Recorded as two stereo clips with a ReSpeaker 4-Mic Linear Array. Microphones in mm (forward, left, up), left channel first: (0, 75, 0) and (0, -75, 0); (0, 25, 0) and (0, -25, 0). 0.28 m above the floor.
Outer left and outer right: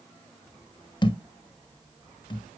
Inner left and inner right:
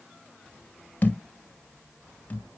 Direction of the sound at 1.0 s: 35° left (ahead or behind).